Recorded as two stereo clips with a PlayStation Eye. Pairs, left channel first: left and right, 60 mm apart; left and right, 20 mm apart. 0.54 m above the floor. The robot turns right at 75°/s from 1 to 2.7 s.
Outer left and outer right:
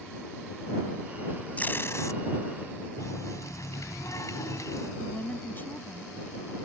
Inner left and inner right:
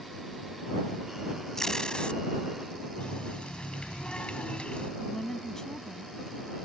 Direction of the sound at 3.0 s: 70° left (ahead or behind).